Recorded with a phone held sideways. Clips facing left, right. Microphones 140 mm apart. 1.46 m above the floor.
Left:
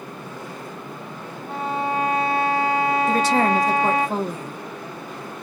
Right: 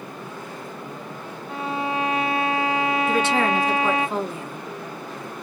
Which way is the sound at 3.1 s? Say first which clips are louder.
Left 2 dB; 40° left (ahead or behind).